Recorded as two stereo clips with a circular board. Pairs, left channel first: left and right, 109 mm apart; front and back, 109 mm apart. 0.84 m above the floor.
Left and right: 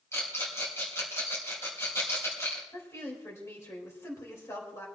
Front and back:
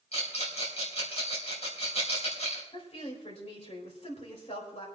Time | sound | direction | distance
0.1 | a rattle | 25° left | 4 m
2.7 | a woman speaking | 25° left | 4 m